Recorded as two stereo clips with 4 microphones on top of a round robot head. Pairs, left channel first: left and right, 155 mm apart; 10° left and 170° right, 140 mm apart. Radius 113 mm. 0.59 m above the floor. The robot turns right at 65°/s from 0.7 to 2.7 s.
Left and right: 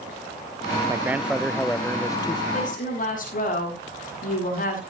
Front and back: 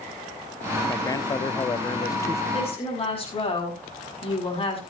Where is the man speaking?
35° right, 0.6 m; by 2.4 s 65° left, 0.6 m.